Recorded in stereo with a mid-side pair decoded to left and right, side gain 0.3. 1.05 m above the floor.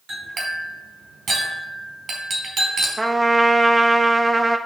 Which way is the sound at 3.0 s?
25° right.